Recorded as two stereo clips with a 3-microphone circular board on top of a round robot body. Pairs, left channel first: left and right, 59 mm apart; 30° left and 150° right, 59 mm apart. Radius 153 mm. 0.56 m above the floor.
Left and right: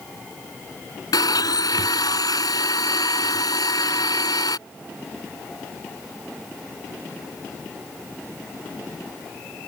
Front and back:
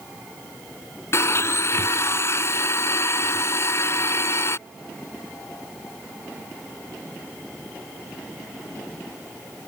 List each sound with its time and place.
1.1 s a blender: 75° left